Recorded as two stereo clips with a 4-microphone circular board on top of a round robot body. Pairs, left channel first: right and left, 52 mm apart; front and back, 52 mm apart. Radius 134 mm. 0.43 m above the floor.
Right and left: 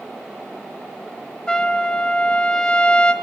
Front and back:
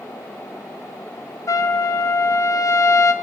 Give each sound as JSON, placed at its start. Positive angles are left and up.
{"t": 1.5, "sound": "a trumpet", "azimuth_deg": -15, "distance_m": 1.2}